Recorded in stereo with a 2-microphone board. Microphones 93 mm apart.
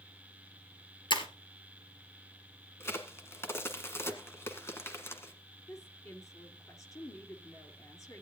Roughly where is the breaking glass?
Left.